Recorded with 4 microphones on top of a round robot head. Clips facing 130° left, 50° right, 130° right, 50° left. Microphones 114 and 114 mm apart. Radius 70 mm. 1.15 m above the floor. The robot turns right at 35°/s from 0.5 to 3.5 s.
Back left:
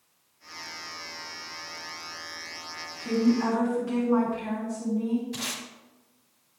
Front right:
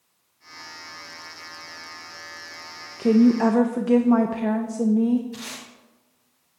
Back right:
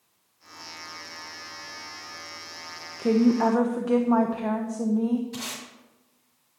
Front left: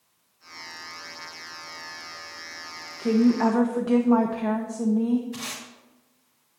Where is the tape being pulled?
170° left, 2.5 m.